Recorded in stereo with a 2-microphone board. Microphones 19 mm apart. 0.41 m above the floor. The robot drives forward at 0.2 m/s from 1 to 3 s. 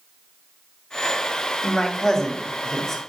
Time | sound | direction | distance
1.6 | a man speaking | 25° left (ahead or behind) | 1.3 m